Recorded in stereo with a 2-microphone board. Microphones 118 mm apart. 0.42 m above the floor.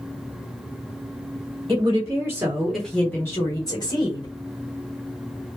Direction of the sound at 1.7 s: 40° right (ahead or behind).